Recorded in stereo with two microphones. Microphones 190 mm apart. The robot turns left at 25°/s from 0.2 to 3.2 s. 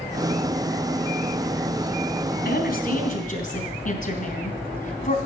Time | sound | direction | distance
2.5 | a woman speaking | 55° left (ahead or behind) | 3 m